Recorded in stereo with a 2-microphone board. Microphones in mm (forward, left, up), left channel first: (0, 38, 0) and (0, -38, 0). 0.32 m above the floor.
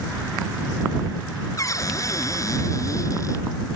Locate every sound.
1.6 s a cupboard door: 45° left (ahead or behind)